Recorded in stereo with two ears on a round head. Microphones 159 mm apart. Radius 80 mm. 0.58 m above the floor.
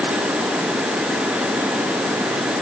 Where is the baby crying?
No baby crying in this recording.